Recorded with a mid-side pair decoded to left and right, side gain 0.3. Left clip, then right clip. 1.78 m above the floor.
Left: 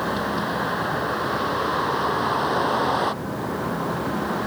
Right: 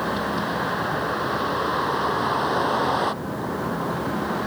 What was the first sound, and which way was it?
A vehicle, 10° right.